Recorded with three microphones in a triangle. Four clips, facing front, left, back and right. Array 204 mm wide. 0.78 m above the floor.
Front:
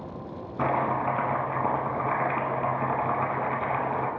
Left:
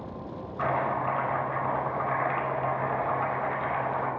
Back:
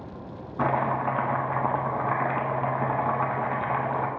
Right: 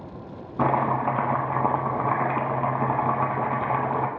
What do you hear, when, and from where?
0.6 s chopping: 90° right, 1.3 m